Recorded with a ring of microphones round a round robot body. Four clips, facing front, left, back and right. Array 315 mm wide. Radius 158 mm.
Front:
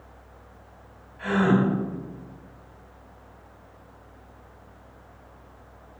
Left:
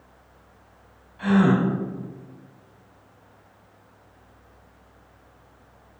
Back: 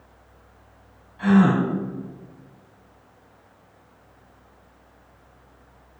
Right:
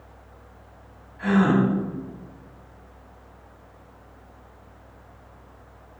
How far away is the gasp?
About 1.5 m.